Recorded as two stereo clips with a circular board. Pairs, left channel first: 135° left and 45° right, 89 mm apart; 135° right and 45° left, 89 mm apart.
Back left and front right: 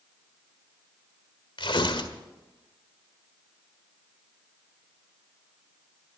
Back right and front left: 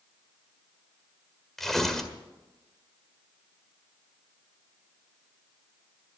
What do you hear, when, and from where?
1.6 s tearing paper: 140° left, 1.8 m